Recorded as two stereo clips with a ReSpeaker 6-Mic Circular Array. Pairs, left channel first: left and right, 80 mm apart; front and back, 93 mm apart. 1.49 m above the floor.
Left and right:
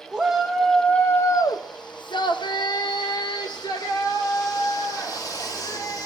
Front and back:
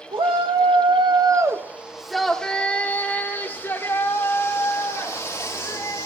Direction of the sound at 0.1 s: 170° right.